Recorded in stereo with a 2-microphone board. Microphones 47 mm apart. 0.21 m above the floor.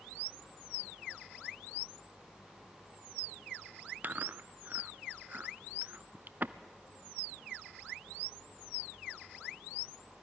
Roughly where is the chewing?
Right.